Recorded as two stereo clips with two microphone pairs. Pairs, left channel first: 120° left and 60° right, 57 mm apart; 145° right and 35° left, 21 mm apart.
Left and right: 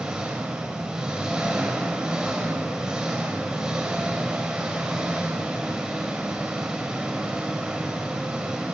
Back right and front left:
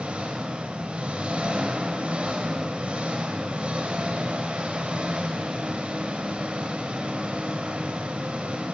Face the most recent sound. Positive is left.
turn(degrees=15)